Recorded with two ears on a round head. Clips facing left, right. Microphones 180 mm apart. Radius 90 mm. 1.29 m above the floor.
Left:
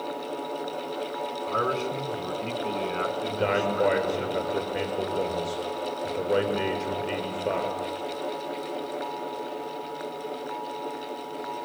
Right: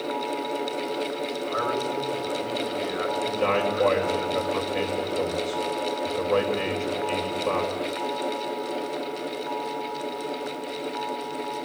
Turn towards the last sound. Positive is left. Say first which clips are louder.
# right 1 dB
turn(degrees=15)  # may be behind; listen again after turning